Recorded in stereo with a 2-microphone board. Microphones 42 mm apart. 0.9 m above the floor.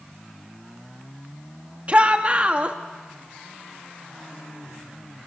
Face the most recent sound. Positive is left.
turn(degrees=-35)  # may be behind; listen again after turning